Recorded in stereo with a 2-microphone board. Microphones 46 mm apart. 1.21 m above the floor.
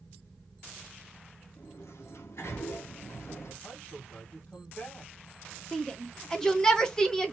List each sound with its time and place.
1.6 s a sliding door: 70° left (ahead or behind), 1.0 m
3.6 s a man speaking: 25° left (ahead or behind), 1.4 m
5.7 s a shout: 10° left (ahead or behind), 0.9 m